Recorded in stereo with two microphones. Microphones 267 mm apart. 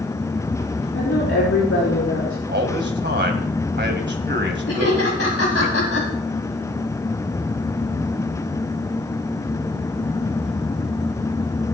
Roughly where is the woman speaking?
Left.